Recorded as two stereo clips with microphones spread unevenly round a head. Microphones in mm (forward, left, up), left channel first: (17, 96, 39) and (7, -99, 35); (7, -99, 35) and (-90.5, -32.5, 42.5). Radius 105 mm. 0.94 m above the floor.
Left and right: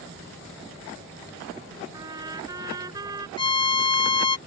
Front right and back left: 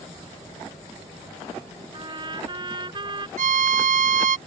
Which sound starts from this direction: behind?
A trumpet, at 1.9 s.